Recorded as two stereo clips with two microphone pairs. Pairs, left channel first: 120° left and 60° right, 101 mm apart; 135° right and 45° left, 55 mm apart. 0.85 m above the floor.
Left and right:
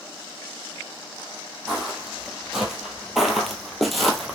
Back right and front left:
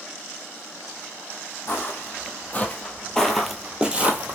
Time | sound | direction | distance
1.7 | footsteps | 145° right | 1.3 m